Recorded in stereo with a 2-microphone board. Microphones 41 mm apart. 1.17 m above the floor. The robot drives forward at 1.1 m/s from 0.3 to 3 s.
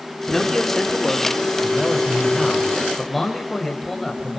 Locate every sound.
0.3 s a man speaking: 5° left (ahead or behind), 3.5 m; by 4.4 s centre (ahead or behind), 6.5 m